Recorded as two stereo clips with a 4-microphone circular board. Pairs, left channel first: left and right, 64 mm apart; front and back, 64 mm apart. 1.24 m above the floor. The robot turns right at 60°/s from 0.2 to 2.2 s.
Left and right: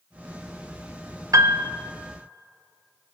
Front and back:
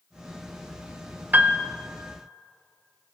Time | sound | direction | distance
1.3 | a piano | 120° right | 0.6 m